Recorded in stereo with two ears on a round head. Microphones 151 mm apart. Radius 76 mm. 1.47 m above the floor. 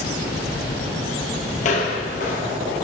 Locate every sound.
1.6 s footsteps: 45° left (ahead or behind), 2 m; by 2.7 s 50° left (ahead or behind), 2.5 m